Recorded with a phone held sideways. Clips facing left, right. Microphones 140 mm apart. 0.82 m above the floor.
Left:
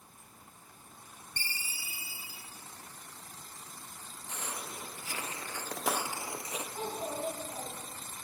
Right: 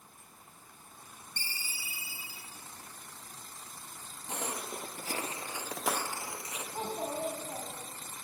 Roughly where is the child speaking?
Right.